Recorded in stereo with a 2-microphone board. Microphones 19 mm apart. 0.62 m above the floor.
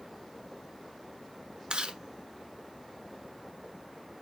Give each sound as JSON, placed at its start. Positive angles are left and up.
{"t": 1.7, "sound": "chewing", "side_deg": -70, "distance_m": 1.2}